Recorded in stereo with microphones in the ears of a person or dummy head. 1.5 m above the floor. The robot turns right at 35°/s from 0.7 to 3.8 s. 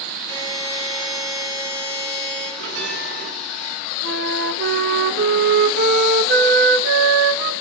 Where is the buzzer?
165° left, 9.5 m; by 2.5 s 135° right, 9.5 m.